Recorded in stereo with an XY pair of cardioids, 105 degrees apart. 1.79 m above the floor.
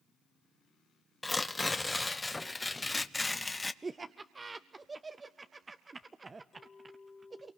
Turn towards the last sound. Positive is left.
turn(degrees=40)